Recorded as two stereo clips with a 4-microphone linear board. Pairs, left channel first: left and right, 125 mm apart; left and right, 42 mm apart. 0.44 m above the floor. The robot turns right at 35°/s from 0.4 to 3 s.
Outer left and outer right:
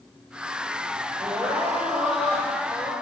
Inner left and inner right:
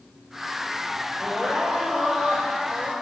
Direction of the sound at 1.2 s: 25° right.